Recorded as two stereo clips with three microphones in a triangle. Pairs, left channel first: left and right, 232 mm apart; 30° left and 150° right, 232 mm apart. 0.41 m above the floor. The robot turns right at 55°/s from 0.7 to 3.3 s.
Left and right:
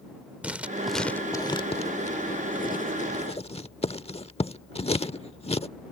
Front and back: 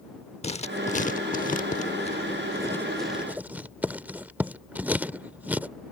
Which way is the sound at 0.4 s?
10° right.